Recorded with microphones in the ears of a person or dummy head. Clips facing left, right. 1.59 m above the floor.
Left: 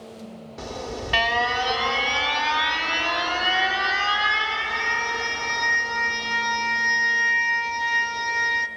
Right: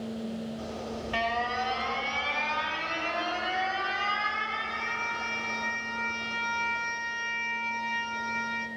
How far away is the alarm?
About 1.0 m.